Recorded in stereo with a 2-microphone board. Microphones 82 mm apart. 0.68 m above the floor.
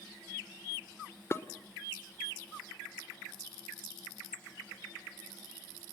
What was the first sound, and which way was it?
Dishes clattering, 30° left (ahead or behind).